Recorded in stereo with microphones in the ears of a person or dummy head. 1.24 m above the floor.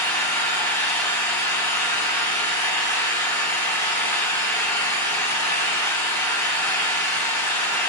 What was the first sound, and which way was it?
An engine running, 15° left (ahead or behind).